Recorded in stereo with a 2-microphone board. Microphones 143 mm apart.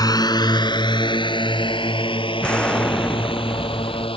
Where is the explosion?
5° left (ahead or behind).